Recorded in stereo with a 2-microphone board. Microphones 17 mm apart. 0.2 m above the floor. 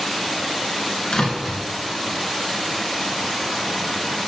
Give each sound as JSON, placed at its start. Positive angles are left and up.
{"t": 1.1, "sound": "a door slam", "side_deg": 50, "distance_m": 2.5}